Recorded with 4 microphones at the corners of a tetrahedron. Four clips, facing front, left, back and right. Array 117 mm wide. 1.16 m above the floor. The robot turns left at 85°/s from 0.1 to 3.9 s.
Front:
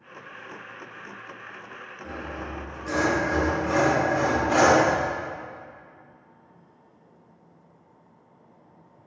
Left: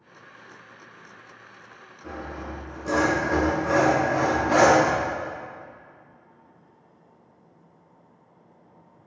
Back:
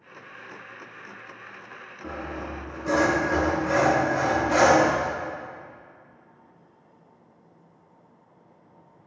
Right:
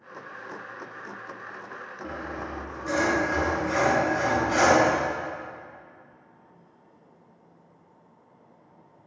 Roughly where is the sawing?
Behind right.